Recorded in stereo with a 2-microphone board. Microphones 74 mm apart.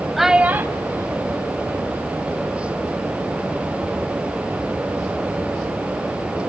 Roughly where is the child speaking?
Centre.